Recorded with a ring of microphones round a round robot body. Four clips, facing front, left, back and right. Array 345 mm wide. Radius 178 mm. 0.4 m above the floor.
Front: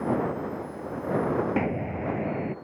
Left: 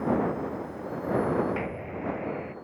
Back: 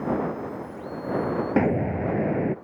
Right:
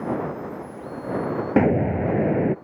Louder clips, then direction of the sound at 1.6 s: Right 14 dB, back 5 dB; 110° right.